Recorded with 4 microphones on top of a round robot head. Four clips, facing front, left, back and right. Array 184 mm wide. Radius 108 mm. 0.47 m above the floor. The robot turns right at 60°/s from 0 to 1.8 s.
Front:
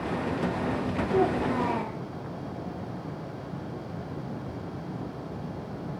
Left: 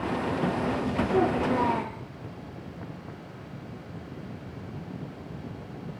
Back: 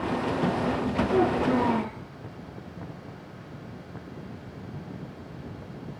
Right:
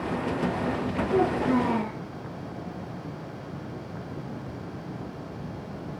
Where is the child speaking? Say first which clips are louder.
Right 2 dB, back 2 dB; 165° right, 7 m; by 2.0 s 125° right, 7 m.